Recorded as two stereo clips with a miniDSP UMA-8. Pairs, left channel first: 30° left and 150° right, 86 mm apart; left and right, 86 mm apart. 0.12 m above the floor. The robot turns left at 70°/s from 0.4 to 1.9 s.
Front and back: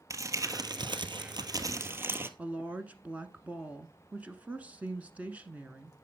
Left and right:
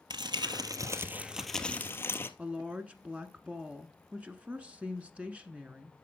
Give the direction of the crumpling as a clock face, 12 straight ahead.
3 o'clock.